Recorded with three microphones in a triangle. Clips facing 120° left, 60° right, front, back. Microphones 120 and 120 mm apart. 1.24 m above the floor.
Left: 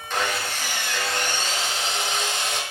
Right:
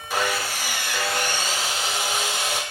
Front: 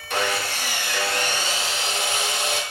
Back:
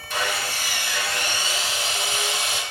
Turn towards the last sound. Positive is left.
turn(degrees=20)